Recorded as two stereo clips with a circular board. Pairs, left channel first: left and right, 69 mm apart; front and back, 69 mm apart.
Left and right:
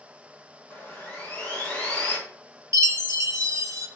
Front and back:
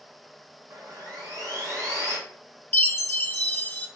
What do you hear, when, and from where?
0.7 s sawing: 160° left, 1.5 m
2.7 s a chime: 55° right, 0.6 m